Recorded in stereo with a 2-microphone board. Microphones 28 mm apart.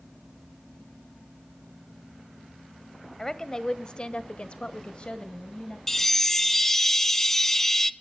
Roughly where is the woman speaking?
Centre.